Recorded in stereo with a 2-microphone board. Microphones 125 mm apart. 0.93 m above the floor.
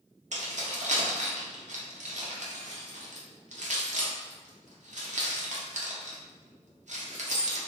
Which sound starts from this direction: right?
Keys jangling, at 0.3 s.